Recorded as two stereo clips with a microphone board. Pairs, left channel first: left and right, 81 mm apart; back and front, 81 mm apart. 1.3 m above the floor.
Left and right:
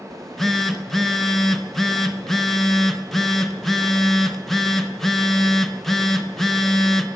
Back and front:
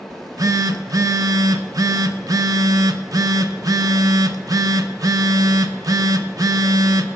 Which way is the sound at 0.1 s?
5° left.